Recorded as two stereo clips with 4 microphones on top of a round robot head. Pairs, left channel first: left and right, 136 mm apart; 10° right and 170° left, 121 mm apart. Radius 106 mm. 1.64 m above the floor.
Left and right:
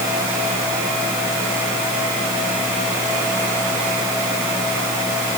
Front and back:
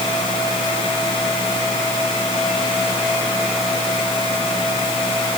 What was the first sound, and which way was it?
Only background noise.